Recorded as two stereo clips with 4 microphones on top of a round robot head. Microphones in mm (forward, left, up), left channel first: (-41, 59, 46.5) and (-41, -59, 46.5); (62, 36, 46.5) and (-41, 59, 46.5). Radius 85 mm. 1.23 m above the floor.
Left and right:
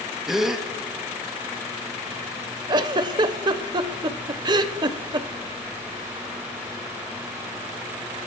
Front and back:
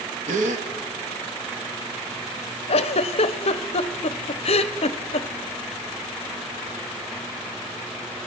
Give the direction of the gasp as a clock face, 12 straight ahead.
6 o'clock.